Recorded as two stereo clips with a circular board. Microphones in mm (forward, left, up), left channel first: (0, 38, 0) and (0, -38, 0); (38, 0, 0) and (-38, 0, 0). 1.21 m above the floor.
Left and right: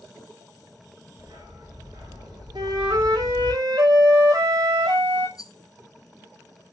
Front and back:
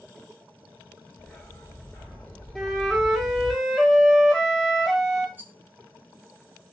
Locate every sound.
1.2 s a dog barking: 70° right, 6 m; by 3.5 s 60° right, 6.5 m
2.5 s a flute: 90° right, 2.5 m
5.4 s a rattle: 115° left, 2.5 m